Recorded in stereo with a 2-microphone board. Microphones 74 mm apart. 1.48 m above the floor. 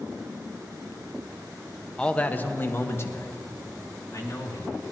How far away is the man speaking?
About 0.7 m.